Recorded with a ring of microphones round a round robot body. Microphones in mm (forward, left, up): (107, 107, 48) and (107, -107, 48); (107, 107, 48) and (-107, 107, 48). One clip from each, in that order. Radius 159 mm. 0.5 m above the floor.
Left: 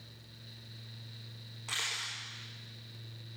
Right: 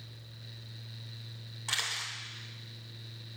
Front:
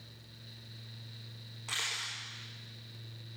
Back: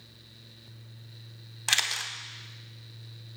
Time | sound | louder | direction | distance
1.7 | a camera shutter | right 2 dB, back 8 dB | 165° right | 0.6 m